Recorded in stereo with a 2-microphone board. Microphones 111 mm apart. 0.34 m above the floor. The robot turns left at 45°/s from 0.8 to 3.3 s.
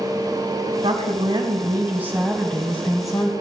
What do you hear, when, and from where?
0.8 s a woman speaking: 110° right, 2.5 m; by 3.3 s 140° left, 2.5 m